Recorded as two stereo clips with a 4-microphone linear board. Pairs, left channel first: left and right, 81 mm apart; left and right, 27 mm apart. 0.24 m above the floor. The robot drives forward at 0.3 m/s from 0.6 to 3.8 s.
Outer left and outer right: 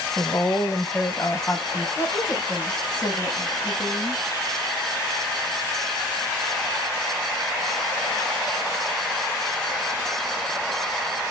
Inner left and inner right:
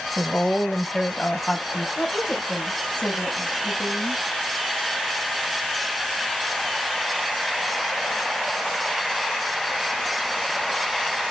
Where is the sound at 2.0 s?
55° left (ahead or behind), 5.5 m.